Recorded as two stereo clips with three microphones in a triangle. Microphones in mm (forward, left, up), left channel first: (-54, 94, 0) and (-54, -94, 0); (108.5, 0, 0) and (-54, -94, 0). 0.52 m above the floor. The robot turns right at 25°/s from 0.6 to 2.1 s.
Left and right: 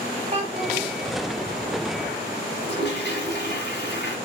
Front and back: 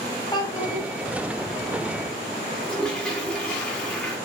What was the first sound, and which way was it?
A child speaking, 40° right.